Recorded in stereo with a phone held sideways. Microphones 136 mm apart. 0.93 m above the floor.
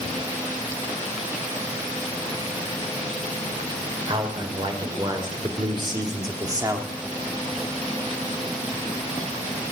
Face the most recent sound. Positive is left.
turn(degrees=-25)  # may be behind; listen again after turning